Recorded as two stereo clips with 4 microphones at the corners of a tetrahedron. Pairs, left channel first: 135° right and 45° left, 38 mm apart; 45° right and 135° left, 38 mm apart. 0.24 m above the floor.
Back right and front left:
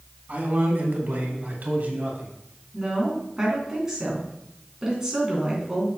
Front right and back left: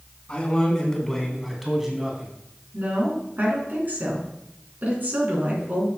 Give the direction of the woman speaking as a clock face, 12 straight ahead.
8 o'clock.